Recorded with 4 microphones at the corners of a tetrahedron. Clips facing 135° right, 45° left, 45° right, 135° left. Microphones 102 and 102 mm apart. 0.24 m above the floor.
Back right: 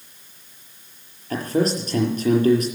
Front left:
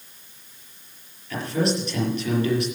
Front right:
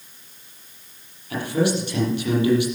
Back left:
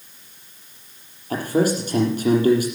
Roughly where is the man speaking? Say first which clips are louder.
Back right 3 dB, back left 2 dB; behind.